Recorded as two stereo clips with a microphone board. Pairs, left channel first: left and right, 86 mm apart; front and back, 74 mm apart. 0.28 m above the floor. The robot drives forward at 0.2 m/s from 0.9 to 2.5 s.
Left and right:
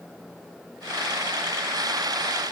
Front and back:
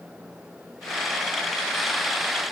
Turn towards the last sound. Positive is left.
No sound to turn to.